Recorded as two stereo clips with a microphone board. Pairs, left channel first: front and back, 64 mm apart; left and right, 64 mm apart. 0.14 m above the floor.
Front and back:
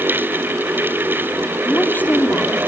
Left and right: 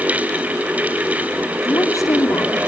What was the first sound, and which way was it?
A woman speaking, 60° left.